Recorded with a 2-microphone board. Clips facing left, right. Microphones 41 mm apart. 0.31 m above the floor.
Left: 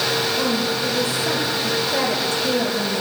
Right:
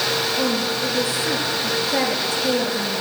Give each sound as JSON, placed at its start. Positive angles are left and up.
{"t": 0.4, "sound": "a woman speaking", "side_deg": -25, "distance_m": 5.5}